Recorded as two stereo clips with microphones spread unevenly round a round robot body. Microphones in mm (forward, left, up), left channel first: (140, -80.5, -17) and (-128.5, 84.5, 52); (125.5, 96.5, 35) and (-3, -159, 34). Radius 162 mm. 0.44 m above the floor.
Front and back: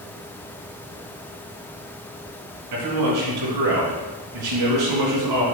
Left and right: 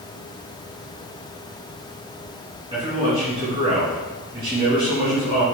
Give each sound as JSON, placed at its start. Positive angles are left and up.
{"t": 2.7, "sound": "a man speaking", "azimuth_deg": 170, "distance_m": 4.5}